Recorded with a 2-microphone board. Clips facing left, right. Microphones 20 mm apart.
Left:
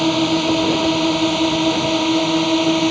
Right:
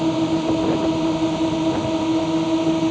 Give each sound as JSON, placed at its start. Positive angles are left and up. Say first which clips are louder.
{"t": 0.0, "sound": "a drone", "louder": "left 3 dB", "side_deg": 80}